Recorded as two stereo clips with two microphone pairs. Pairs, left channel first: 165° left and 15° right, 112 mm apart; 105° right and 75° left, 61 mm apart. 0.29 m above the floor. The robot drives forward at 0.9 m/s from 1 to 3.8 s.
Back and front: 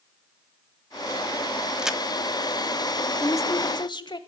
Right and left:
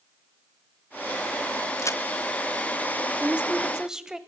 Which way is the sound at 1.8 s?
90° right.